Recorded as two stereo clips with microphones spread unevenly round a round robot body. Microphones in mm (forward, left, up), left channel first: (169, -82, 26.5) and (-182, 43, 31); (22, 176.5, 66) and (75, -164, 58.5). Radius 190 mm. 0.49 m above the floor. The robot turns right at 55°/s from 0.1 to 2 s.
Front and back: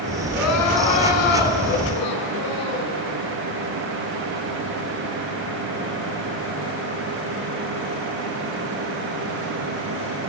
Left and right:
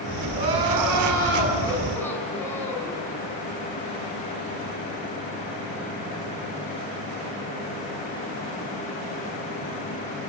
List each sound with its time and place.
0.3 s crying: 80° right, 7.5 m; by 2.9 s 15° left, 7.5 m